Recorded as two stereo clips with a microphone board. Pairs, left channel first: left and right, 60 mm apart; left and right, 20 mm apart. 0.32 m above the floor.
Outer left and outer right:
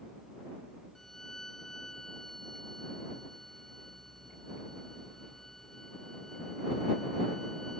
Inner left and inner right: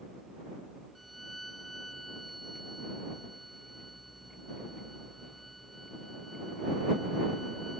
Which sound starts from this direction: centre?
A violin, at 0.9 s.